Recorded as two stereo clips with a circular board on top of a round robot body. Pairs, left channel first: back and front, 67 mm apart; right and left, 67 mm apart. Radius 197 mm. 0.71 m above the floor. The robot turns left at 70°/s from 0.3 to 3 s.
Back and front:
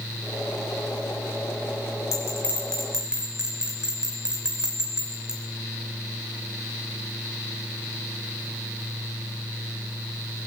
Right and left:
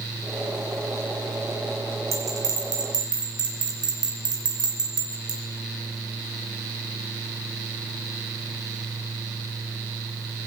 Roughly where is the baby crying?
I don't hear a baby crying.